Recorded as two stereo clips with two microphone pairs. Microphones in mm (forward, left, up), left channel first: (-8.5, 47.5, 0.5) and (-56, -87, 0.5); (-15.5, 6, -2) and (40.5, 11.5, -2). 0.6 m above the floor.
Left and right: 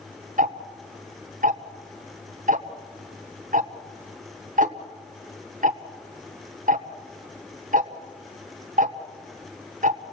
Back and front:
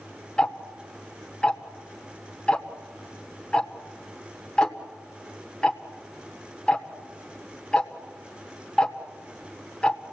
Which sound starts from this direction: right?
Ticking, at 0.4 s.